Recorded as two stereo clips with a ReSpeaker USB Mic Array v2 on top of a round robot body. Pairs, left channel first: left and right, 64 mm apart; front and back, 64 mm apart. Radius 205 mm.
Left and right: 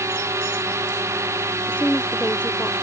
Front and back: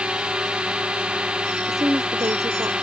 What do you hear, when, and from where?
0.0 s a drone: 110° right
1.7 s a woman speaking: 160° left